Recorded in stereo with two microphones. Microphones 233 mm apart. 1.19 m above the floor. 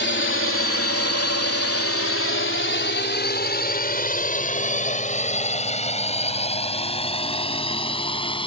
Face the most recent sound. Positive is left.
turn(degrees=20)  # may be behind; listen again after turning